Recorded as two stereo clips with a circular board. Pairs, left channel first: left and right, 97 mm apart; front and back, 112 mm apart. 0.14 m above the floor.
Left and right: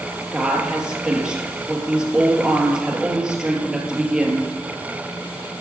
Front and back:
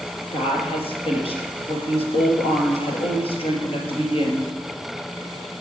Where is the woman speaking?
10° right, 2.5 m.